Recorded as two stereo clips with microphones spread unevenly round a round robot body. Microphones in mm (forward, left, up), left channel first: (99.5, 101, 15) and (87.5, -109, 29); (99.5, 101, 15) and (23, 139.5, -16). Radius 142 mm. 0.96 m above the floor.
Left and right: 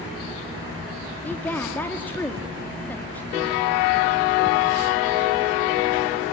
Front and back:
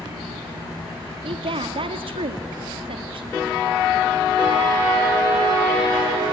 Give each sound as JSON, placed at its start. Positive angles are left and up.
{"t": 1.2, "sound": "a woman speaking", "azimuth_deg": 170, "distance_m": 1.5}